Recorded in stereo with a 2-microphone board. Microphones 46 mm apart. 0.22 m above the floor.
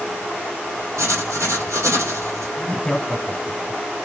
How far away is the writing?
About 2 m.